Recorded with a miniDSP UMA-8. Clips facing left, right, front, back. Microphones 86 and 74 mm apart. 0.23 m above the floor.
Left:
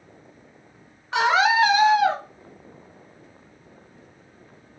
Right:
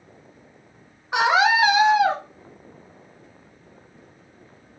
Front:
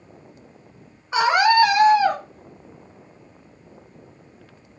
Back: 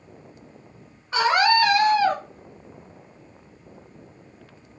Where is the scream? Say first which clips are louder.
Right 1 dB, front 3 dB; 40° right, 1.0 m.